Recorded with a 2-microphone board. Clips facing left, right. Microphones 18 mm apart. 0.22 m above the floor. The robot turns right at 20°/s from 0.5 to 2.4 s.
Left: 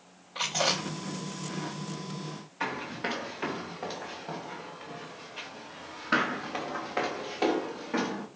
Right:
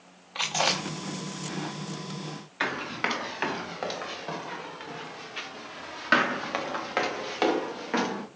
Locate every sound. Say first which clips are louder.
0.3 s chewing: right 2 dB; 35° right (ahead or behind), 4 m; by 2.4 s 75° right (ahead or behind), 4 m
2.6 s running footsteps: right 4 dB; 80° right, 3.5 m; by 8.3 s 45° right (ahead or behind), 2.5 m